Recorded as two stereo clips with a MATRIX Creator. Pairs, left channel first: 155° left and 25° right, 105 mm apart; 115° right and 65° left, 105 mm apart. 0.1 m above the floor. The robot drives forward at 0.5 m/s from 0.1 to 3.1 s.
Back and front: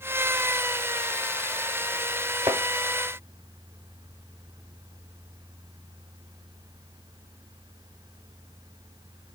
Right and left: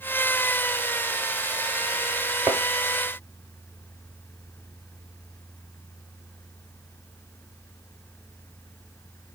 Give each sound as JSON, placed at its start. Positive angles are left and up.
{"t": 2.5, "sound": "a thud", "azimuth_deg": 0, "distance_m": 0.9}